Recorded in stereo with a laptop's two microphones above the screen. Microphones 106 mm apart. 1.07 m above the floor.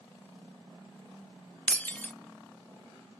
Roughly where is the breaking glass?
Centre.